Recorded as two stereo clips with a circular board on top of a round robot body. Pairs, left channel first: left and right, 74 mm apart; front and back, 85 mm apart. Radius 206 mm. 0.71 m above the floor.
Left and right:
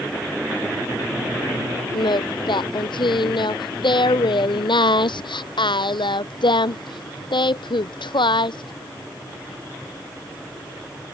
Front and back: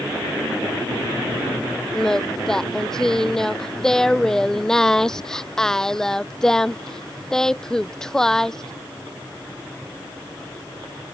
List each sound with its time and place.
1.9 s singing: 85° left